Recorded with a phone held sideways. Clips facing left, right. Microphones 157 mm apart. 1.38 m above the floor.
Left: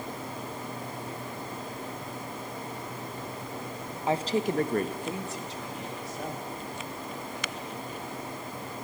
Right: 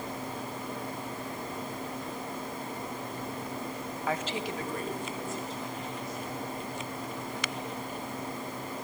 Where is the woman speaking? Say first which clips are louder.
Left 7 dB; 25° left (ahead or behind), 1.2 m; by 6.5 s 90° left, 4 m.